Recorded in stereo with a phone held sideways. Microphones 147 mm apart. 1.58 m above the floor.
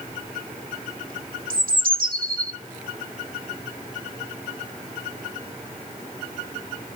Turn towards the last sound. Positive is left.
turn(degrees=-75)  # may be behind; listen again after turning